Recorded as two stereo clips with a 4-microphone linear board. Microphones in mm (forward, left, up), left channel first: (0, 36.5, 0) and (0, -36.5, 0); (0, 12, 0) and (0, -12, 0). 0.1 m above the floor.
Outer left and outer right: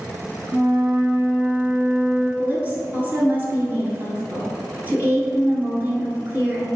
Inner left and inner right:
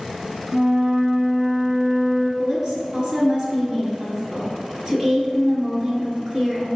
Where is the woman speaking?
25° right (ahead or behind), 1.7 m.